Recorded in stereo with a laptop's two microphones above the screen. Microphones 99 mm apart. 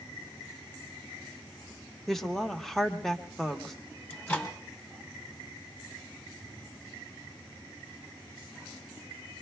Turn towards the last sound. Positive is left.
turn(degrees=25)  # may be behind; listen again after turning